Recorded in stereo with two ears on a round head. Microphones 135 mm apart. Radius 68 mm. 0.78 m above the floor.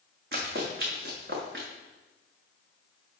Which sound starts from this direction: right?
Running footsteps, at 0.3 s.